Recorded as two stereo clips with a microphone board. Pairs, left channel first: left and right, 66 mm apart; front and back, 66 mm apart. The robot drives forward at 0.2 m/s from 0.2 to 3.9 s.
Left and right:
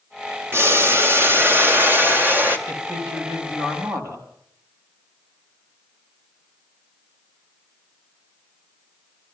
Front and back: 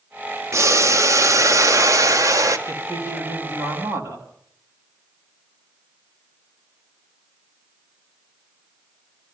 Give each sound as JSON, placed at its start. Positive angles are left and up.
{"t": 0.5, "sound": "boiling", "azimuth_deg": -140, "distance_m": 1.2}
{"t": 2.7, "sound": "a man speaking", "azimuth_deg": -130, "distance_m": 4.5}